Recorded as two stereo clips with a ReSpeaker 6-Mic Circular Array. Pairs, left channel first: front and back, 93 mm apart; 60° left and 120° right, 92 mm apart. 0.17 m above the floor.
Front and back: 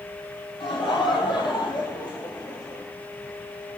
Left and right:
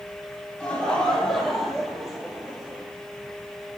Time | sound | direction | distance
0.6 | laughter | 20° right | 5 m